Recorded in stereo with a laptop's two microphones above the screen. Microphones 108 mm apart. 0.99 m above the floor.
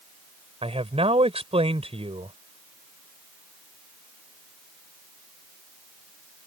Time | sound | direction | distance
0.6 | a man speaking | 65° right (ahead or behind) | ?